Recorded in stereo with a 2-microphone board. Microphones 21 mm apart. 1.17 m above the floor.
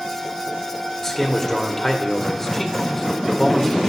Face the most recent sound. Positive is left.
turn(degrees=25)  # may be behind; listen again after turning